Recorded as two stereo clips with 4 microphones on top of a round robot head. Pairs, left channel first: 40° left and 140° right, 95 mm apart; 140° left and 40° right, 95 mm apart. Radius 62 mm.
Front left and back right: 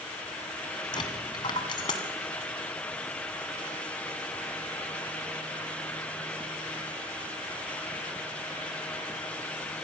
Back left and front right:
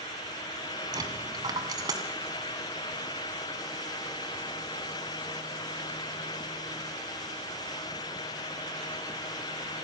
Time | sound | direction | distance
0.9 | a dropped coin | 5° left | 2.5 m